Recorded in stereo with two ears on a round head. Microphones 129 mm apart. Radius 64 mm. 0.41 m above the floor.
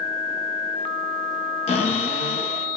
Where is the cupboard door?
45° left (ahead or behind), 5.5 m.